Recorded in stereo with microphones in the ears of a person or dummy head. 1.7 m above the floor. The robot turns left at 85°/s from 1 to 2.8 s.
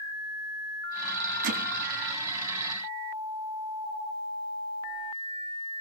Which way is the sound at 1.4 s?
70° right (ahead or behind).